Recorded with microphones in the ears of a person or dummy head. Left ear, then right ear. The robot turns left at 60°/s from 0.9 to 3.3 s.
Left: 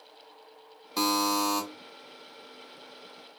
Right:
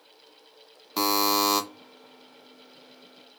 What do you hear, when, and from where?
1.0 s a buzzer: 10° right, 0.6 m; by 1.6 s 45° right, 0.6 m